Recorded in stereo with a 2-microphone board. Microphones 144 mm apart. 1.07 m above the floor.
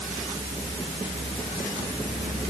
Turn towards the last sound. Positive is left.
No sound to turn to.